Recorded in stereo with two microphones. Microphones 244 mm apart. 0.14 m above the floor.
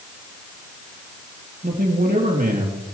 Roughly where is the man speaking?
Right.